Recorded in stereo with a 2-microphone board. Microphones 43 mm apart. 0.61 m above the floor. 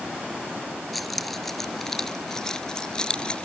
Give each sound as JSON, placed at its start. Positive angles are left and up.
{"t": 0.9, "sound": "keys jangling", "side_deg": 5}